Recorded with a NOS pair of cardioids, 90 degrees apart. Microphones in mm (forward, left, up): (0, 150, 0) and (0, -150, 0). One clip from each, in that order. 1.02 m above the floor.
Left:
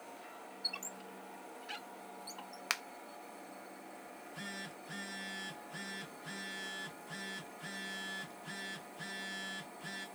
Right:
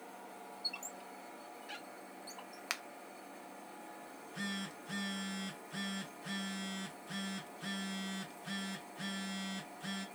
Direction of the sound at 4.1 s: 20° right.